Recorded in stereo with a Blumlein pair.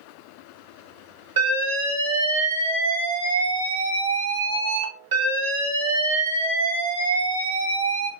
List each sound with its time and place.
1.4 s an alarm: 55° right, 1.6 m